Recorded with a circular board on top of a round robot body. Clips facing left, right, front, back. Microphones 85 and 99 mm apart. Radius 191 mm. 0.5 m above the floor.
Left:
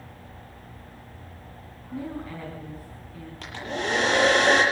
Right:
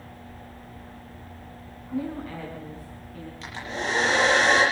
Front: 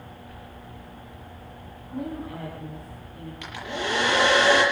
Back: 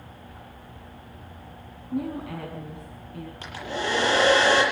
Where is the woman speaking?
175° left, 6.5 m.